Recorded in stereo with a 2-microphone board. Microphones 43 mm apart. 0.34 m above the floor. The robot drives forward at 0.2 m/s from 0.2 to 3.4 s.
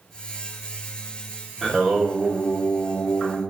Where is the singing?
Centre (ahead or behind), 0.8 m.